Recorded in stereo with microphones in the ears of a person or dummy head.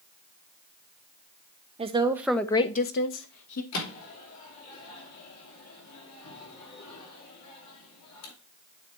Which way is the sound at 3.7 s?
90° left.